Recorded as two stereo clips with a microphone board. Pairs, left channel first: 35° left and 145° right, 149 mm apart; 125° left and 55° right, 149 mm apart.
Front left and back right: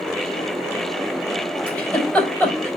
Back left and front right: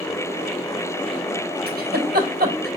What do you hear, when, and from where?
1.7 s a giggle: 50° right, 4.5 m